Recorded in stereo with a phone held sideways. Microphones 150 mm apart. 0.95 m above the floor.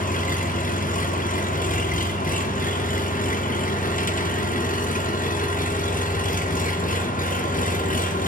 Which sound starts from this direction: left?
An engine running, at 0.0 s.